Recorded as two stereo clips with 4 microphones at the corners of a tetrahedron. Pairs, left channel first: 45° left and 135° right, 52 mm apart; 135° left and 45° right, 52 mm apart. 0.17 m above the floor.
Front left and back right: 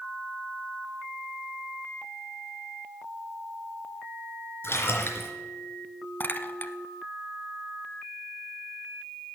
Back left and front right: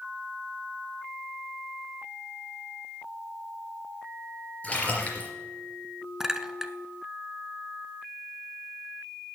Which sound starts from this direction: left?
A splash, at 4.6 s.